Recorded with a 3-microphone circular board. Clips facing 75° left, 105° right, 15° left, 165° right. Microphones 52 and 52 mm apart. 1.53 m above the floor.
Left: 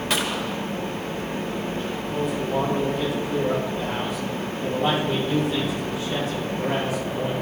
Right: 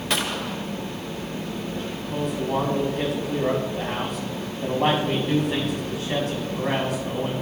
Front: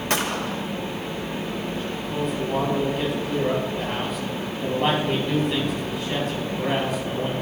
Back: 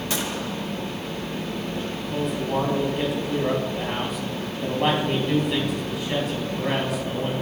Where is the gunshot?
15° right, 0.8 m.